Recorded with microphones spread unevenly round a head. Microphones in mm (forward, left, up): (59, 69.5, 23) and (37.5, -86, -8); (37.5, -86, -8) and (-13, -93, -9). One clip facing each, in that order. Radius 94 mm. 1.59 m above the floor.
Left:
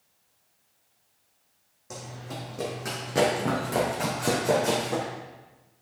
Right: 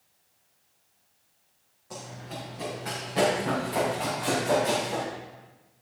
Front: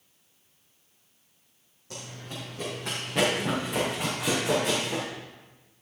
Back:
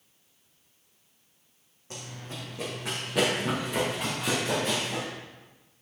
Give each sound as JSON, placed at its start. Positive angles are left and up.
{"t": 1.9, "sound": "running footsteps", "azimuth_deg": 115, "distance_m": 3.5}